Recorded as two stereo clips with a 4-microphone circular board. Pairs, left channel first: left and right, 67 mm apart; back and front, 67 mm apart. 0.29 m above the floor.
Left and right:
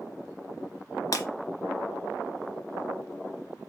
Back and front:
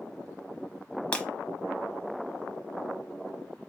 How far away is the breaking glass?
About 0.8 m.